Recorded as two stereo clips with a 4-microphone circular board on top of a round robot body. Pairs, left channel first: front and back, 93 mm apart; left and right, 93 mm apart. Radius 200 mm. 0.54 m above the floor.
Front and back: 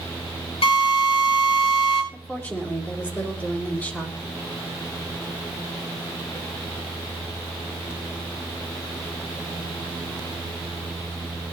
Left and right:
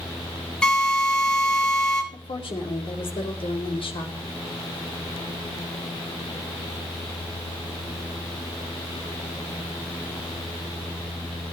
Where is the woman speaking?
75° left, 4 m.